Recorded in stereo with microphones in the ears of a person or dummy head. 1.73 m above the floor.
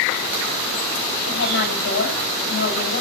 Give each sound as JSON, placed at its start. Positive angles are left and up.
{"t": 1.3, "sound": "a woman speaking", "side_deg": 80, "distance_m": 4.5}